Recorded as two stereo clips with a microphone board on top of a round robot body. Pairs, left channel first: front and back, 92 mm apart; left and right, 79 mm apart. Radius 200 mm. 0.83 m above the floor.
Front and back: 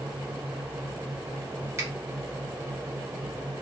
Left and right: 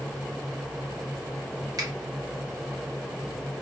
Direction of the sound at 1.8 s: 125° right.